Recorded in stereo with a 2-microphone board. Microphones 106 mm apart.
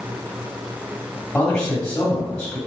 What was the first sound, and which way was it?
A man speaking, 10° left (ahead or behind).